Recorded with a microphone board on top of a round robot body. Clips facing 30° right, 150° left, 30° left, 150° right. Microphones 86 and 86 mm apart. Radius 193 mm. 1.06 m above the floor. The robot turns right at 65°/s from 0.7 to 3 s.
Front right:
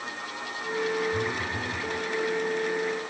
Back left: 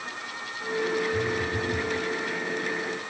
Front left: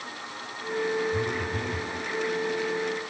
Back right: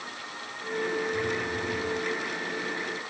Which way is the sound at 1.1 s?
5° right.